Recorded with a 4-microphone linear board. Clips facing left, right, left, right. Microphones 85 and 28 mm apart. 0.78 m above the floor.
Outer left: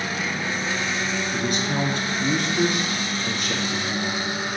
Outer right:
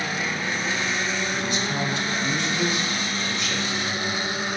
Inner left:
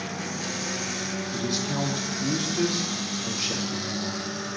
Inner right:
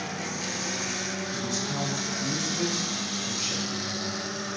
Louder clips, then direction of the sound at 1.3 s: Outer left 2 dB, inner left 4 dB; 50° left (ahead or behind).